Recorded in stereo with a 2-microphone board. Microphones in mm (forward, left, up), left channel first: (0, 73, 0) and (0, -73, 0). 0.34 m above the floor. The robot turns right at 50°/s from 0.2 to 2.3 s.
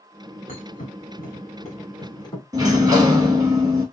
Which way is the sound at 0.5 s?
60° left (ahead or behind).